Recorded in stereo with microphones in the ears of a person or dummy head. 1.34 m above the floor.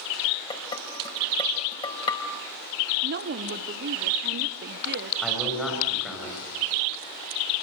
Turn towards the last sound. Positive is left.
turn(degrees=5)  # may be behind; listen again after turning